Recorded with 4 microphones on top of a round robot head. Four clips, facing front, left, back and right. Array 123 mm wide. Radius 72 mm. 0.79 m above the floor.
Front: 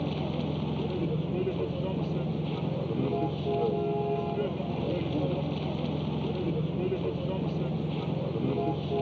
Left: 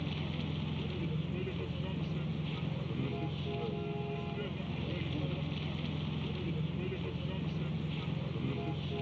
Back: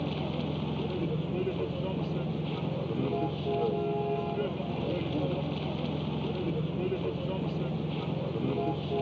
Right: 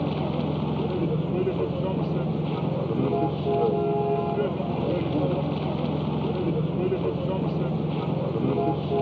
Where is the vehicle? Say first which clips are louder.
Right 13 dB, front 1 dB; 75° right.